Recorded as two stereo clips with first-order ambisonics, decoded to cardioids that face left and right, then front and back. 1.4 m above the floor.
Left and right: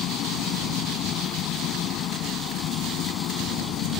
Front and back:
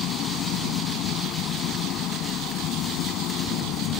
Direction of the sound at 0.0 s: 45° left.